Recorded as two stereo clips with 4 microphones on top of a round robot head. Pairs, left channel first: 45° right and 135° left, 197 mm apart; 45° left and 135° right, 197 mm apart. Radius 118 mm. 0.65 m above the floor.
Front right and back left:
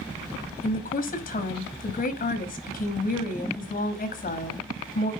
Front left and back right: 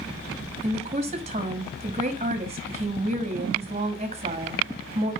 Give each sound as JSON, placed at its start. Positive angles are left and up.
{"t": 0.6, "sound": "a woman speaking", "azimuth_deg": -80, "distance_m": 1.5}